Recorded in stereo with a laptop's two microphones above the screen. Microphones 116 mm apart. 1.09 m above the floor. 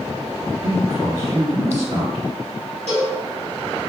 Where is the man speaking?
65° right (ahead or behind), 1.1 m.